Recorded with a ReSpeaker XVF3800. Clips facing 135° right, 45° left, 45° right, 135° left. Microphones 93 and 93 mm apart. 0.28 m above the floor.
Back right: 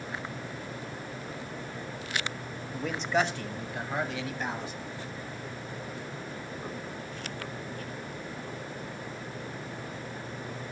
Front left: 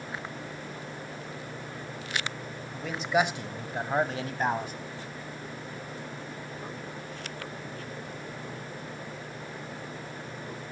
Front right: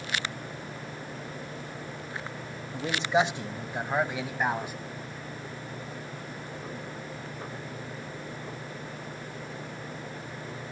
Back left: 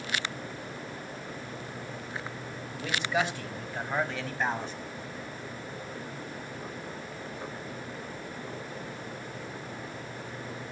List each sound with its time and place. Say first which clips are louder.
2.7 s a man speaking: front left 1 dB, front right 4 dB; 55° right, 0.9 m; by 4.7 s 35° left, 1.5 m